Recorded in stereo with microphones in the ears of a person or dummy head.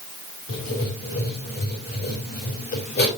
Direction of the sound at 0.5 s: 55° left (ahead or behind).